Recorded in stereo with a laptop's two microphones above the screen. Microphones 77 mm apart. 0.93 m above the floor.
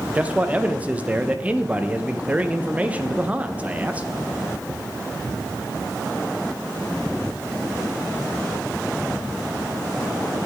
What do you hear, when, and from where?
0.1 s a man speaking: 20° right (ahead or behind), 0.5 m